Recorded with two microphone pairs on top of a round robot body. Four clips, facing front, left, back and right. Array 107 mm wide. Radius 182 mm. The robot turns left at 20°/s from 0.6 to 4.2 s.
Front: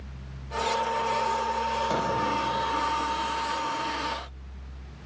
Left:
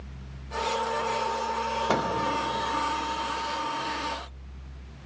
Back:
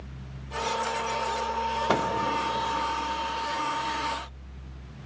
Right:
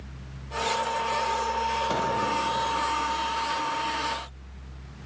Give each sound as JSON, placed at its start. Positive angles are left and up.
{"t": 1.9, "sound": "a microwave", "azimuth_deg": 155, "distance_m": 1.7}